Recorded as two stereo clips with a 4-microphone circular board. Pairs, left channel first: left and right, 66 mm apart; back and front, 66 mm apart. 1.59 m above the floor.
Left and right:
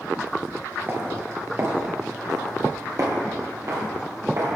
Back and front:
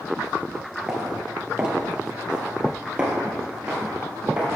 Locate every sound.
0.9 s footsteps: 75° right, 2.0 m; by 4.5 s 70° right, 3.5 m